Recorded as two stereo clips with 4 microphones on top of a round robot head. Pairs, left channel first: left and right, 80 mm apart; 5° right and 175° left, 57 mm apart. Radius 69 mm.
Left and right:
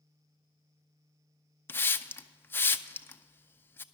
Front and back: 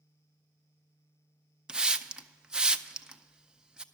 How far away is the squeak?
No squeak in this recording.